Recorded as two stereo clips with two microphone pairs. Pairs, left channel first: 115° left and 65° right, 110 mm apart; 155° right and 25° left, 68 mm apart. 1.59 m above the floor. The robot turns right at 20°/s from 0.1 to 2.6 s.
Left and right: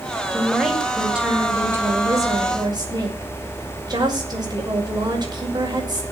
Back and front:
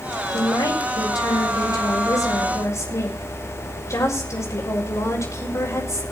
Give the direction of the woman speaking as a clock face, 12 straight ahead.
5 o'clock.